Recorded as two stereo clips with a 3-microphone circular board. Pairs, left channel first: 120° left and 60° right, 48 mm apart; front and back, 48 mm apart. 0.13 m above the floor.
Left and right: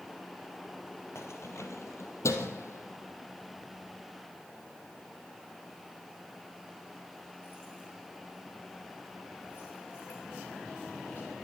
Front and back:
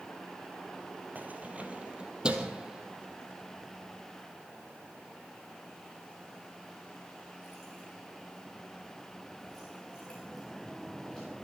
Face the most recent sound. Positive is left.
turn(degrees=75)